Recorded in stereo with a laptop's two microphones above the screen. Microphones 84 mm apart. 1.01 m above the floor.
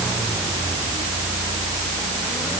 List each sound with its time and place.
Only background noise.